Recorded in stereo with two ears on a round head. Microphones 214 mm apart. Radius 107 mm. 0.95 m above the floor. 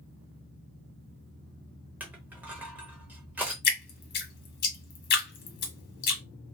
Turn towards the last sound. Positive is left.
turn(degrees=45)  # may be behind; listen again after turning